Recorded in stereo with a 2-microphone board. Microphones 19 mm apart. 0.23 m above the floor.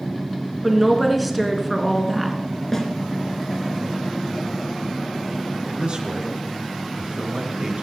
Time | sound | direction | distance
0.6 | a woman speaking | centre (ahead or behind) | 2.5 m
2.7 | a snare drum | 15° left (ahead or behind) | 2.5 m
5.7 | a man speaking | 50° right (ahead or behind) | 4 m